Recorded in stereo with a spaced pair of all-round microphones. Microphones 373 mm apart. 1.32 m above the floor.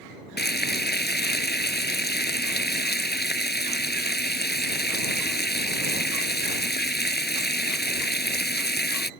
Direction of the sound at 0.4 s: 25° left (ahead or behind).